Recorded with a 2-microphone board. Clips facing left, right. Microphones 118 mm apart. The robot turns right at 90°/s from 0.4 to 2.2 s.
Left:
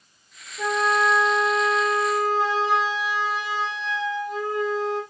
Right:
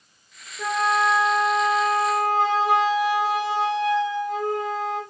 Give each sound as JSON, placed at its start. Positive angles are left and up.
{"t": 0.6, "sound": "a flute", "azimuth_deg": 95, "distance_m": 4.5}